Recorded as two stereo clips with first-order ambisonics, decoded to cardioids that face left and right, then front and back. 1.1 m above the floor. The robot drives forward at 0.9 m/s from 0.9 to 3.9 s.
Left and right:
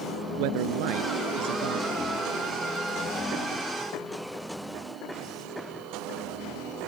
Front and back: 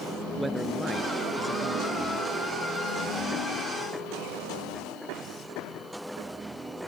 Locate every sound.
0.4 s a man speaking: 95° right; by 1.9 s 100° right